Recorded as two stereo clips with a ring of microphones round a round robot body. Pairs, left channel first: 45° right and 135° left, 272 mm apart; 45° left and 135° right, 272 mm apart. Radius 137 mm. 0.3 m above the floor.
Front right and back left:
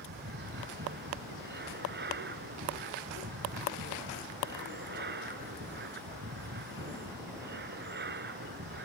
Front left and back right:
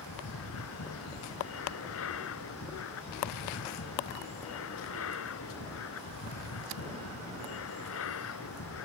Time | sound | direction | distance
0.0 | an aircraft | 80° left | ?